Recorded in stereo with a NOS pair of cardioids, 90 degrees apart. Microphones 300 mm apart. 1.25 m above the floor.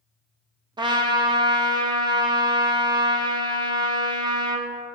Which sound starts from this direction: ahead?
A trumpet, at 0.8 s.